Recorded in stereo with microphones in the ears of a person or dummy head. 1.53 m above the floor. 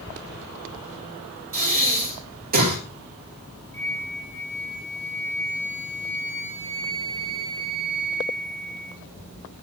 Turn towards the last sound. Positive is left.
turn(degrees=15)  # may be behind; listen again after turning